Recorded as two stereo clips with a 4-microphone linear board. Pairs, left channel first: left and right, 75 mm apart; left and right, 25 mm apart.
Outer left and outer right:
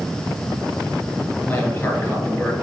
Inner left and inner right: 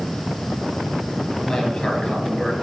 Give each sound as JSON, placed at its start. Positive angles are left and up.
{"t": 1.5, "sound": "a man speaking", "side_deg": 15, "distance_m": 3.0}